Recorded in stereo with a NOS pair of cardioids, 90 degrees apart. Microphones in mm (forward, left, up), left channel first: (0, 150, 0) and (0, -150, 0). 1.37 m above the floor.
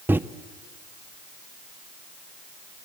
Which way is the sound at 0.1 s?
5° right.